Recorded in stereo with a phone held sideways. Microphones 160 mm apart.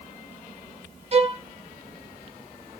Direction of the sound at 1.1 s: 40° right (ahead or behind).